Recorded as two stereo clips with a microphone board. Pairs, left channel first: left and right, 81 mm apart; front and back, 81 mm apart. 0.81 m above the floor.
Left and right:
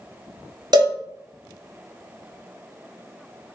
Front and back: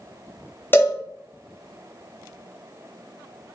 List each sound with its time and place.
0.7 s a cowbell: 60° right, 1.0 m